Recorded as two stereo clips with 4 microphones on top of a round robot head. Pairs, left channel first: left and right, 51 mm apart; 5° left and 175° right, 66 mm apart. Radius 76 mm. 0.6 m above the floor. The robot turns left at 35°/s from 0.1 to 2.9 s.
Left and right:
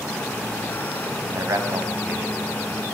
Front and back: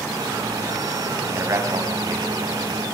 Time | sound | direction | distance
1.3 | a man speaking | 115° right | 5 m